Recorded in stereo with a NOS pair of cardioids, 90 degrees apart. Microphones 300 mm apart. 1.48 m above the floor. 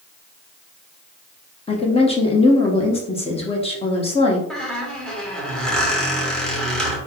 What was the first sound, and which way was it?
A woman speaking, 20° left.